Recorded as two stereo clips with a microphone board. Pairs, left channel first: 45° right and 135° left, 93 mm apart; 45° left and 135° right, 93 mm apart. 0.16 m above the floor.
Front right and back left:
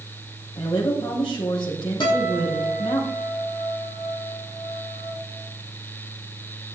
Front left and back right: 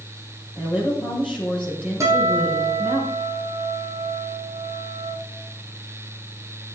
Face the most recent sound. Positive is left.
turn(degrees=-80)